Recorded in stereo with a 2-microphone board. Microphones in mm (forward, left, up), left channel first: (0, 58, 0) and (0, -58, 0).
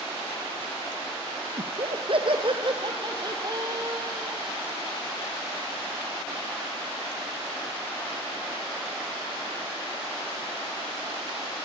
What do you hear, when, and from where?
1.6 s laughter: 55° right (ahead or behind), 2.5 m; by 4.4 s 30° right (ahead or behind), 5 m